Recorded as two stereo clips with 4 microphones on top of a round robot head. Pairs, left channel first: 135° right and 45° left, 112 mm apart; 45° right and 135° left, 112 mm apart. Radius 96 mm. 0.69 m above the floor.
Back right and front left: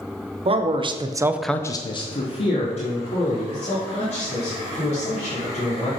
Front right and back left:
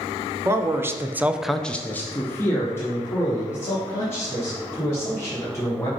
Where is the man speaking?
70° left, 1.1 m; by 5.9 s 110° right, 4.5 m.